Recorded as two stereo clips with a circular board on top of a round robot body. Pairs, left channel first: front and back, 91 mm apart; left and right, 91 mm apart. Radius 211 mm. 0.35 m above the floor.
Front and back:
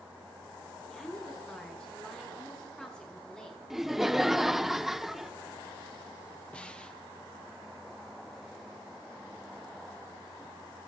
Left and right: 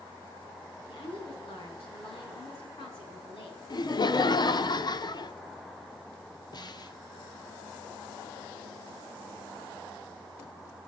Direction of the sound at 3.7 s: 95° left.